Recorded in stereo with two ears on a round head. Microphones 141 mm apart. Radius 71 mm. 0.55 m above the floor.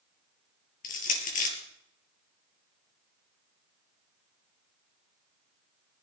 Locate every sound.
0.8 s crushing: 60° left (ahead or behind), 4 m